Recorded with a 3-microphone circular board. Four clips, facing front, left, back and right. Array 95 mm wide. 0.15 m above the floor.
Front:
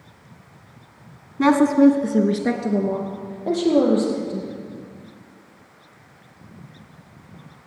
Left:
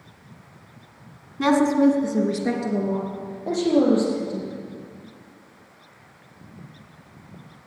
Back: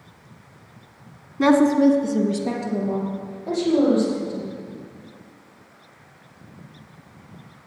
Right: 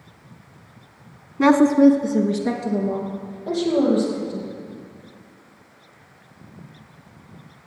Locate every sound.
1.4 s a woman speaking: 75° right, 1.2 m; by 4.5 s 20° left, 5 m